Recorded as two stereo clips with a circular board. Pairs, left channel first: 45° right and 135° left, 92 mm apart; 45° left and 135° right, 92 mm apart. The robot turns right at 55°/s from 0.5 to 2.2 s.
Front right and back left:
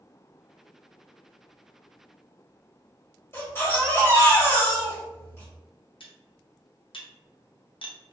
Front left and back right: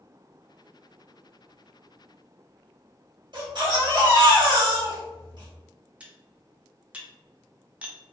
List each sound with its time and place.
3.3 s a baby crying: 105° right, 1.5 m
6.0 s cutlery clinking: 60° right, 0.5 m